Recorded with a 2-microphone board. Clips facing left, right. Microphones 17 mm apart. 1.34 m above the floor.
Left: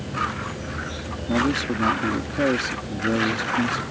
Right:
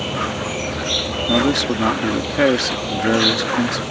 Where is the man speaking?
35° right (ahead or behind).